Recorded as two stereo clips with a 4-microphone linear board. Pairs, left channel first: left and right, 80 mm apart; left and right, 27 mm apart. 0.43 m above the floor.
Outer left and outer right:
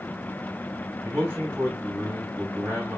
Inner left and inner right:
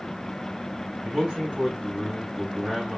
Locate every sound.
1.0 s a man speaking: 20° right (ahead or behind), 2.5 m